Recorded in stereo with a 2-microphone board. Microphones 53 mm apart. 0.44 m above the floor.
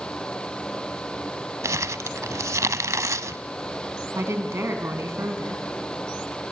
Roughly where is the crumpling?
Right.